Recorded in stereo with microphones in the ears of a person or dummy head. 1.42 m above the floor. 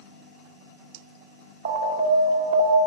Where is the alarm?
45° right (ahead or behind), 1.6 m.